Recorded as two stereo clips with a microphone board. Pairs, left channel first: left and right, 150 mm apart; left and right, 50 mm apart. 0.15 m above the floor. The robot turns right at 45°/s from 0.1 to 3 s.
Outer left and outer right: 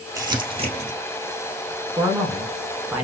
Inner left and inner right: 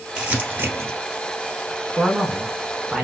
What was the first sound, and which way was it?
Crumpling, 20° right (ahead or behind).